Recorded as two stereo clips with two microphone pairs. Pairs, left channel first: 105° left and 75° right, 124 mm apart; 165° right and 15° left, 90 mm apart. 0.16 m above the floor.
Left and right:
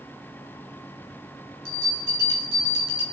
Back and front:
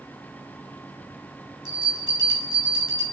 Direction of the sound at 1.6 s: 50° left.